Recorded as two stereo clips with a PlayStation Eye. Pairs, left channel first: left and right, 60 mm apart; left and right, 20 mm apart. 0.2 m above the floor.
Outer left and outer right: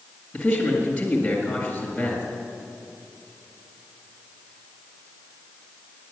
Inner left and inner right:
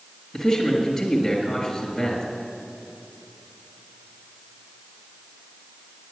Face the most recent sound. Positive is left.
turn(degrees=25)  # may be behind; listen again after turning